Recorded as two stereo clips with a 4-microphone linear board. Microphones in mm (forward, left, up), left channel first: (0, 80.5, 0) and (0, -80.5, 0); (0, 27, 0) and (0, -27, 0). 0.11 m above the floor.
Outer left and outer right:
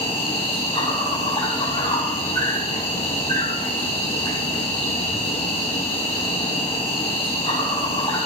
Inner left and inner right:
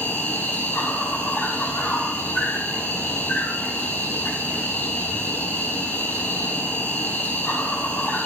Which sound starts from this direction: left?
An insect, at 0.0 s.